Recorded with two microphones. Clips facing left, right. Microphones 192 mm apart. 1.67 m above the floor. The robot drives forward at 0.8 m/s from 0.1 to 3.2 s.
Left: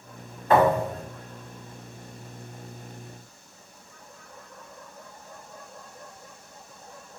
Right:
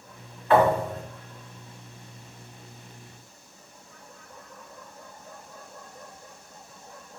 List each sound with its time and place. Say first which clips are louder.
0.5 s a thud: even; 45° left (ahead or behind), 1.4 m; by 1.0 s 40° left (ahead or behind), 1.5 m